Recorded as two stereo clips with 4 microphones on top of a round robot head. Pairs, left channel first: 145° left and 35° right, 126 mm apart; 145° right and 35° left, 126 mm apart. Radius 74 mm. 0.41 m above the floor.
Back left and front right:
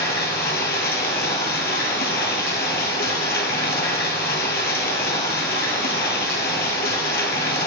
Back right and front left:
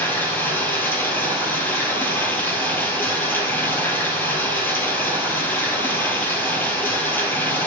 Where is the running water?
140° left, 1.8 m.